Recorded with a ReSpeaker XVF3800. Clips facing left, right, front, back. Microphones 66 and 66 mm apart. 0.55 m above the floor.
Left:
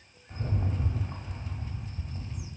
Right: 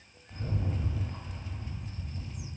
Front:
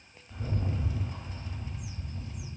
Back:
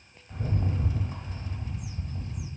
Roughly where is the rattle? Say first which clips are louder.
Left 1 dB, back 3 dB; behind left.